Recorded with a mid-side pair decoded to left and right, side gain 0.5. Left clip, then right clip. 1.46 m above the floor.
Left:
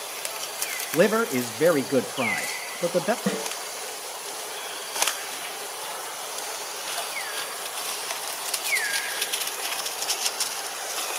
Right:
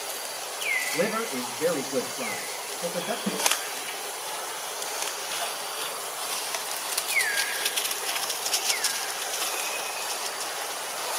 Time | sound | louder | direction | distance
0.9 | a man speaking | left 6 dB | 60° left | 1.2 m
3.2 | a snare drum | right 2 dB | 60° left | 3.5 m